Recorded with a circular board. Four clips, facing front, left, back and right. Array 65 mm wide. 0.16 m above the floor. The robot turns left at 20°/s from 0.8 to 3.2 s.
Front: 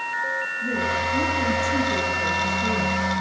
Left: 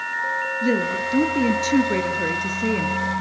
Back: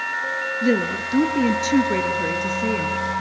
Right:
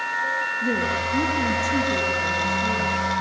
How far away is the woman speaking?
About 2 m.